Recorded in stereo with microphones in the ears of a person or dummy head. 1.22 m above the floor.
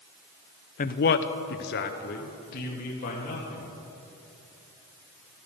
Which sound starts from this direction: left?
A man speaking, at 0.8 s.